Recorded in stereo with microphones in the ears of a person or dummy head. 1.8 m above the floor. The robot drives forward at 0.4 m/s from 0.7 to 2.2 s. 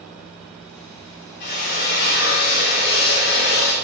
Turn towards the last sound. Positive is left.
turn(degrees=50)  # may be behind; listen again after turning